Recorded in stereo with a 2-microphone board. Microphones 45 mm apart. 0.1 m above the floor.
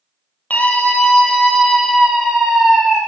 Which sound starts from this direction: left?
A scream, at 0.5 s.